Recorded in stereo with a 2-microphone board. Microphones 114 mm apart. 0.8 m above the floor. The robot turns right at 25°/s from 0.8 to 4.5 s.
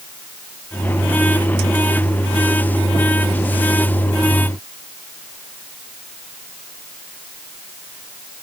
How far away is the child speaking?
No child speaking in this recording.